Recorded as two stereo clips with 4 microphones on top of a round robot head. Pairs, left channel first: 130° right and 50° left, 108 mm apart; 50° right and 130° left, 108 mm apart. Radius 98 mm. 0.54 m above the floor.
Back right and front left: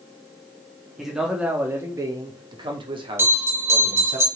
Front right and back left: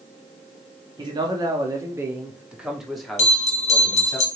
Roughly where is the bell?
Ahead.